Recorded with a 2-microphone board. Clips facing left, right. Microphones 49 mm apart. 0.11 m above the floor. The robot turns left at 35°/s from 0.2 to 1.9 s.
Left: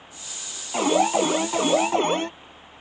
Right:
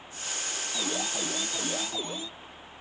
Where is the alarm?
115° left; by 2.3 s 75° left.